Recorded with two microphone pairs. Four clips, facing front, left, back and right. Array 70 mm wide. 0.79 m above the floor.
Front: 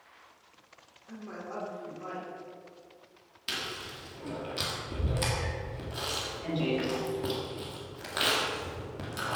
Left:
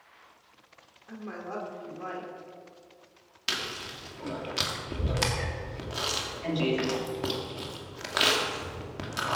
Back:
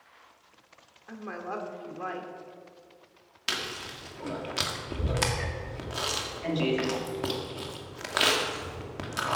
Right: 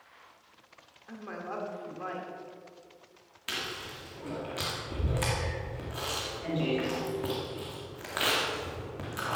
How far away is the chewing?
About 2 m.